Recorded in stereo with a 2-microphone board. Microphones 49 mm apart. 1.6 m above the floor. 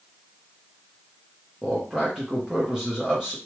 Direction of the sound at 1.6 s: 10° right (ahead or behind).